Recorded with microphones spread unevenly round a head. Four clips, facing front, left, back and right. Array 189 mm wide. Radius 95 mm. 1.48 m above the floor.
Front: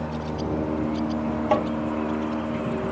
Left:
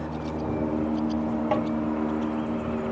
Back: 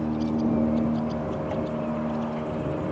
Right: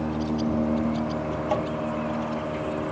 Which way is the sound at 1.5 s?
5° left.